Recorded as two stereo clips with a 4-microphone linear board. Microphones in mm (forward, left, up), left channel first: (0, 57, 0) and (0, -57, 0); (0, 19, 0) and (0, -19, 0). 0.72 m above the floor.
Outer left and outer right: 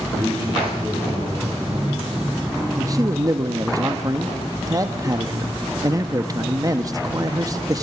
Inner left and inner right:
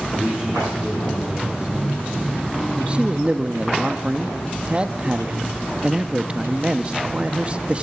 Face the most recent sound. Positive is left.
turn(degrees=-30)  # may be behind; listen again after turning